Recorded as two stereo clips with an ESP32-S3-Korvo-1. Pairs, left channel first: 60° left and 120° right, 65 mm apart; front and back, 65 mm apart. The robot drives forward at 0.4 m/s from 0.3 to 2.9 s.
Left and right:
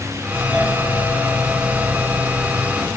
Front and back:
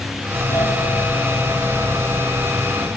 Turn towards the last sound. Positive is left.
turn(degrees=-75)